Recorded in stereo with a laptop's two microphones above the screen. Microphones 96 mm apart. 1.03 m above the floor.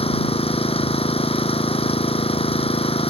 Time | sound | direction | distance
0.0 | an engine running | 90° left | ?